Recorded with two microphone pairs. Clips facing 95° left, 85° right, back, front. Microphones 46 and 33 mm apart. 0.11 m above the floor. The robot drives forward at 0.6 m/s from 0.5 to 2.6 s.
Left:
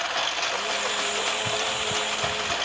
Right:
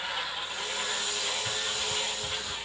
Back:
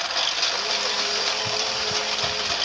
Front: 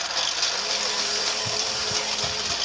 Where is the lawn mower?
110° left.